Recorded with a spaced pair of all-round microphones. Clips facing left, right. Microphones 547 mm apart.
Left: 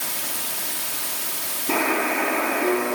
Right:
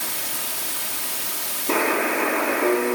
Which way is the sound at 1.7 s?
10° left (ahead or behind).